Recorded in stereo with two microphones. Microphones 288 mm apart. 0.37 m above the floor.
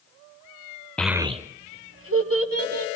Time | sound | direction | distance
1.0 | a child speaking | 5° left (ahead or behind) | 0.5 m